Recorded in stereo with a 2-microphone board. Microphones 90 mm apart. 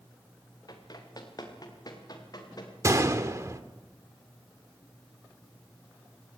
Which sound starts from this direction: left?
Running footsteps, at 0.7 s.